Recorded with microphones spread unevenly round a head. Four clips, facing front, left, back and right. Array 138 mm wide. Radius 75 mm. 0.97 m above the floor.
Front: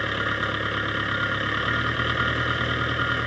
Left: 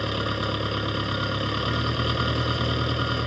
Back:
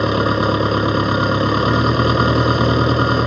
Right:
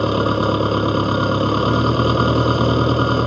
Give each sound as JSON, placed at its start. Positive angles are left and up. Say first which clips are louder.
{"t": 0.0, "sound": "an engine running", "louder": "right 11 dB, back 11 dB", "azimuth_deg": -140}